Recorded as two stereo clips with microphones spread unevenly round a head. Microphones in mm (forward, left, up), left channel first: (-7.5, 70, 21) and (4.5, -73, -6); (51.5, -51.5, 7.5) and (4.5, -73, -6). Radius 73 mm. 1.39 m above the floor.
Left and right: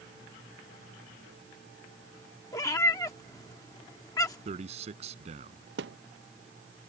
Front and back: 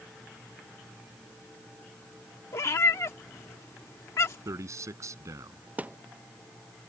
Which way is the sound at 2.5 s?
30° left.